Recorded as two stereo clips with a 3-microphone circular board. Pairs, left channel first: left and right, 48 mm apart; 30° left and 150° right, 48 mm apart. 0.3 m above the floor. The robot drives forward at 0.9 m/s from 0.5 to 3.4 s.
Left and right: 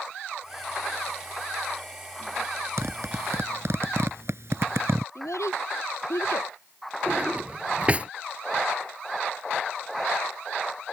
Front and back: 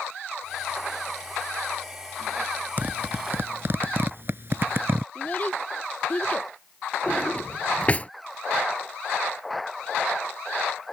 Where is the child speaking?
90° left.